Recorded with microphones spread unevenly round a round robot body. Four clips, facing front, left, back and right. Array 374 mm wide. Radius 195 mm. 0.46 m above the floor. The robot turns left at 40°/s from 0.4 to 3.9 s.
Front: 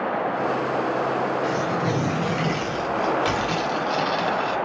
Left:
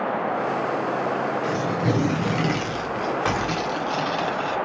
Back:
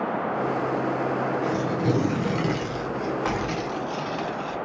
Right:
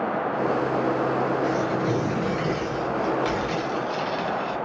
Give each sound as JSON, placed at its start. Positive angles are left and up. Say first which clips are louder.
{"t": 1.4, "sound": "tearing paper", "louder": "even, front 1 dB", "azimuth_deg": 160, "distance_m": 1.5}